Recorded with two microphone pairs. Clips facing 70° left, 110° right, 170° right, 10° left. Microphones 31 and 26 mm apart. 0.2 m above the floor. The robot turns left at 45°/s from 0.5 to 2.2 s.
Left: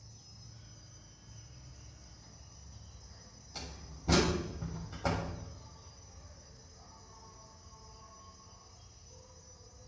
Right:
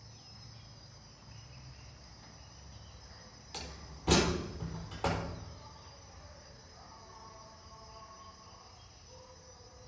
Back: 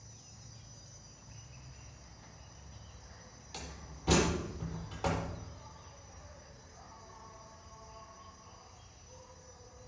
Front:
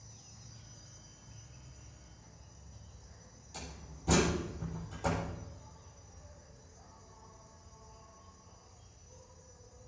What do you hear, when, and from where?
0.0 s an insect: 85° right, 0.7 m; by 9.9 s 160° right, 0.7 m
3.5 s a door slam: 125° right, 4.5 m